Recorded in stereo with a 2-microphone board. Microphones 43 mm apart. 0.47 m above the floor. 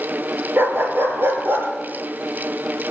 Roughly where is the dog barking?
Right.